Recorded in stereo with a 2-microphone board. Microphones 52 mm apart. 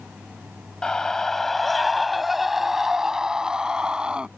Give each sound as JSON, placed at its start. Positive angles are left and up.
{"t": 0.8, "sound": "a scream", "side_deg": 15}